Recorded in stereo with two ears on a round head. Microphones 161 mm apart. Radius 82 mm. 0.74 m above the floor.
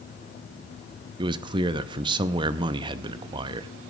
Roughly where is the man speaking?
Right.